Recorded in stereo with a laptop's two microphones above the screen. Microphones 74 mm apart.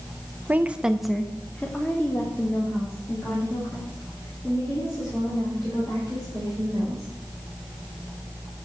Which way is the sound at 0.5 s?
25° right (ahead or behind).